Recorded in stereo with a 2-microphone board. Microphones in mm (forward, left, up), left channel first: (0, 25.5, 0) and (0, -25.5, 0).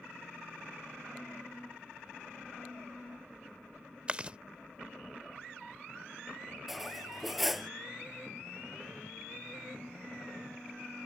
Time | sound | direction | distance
4.1 | chewing | 25° right (ahead or behind) | ?
6.7 | cutlery clinking | 5° right (ahead or behind) | ?